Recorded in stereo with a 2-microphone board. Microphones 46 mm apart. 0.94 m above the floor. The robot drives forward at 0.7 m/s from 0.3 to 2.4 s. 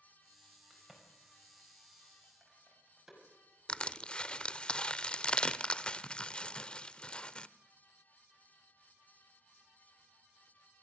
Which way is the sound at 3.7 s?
25° left (ahead or behind).